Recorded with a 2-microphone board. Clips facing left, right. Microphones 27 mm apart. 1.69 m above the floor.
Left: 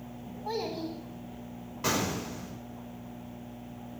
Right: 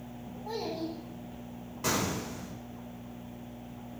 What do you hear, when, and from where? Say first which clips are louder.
0.5 s a child speaking: left 2 dB; 30° left (ahead or behind), 8.5 m
1.8 s an explosion: left 1 dB; 15° left (ahead or behind), 4.5 m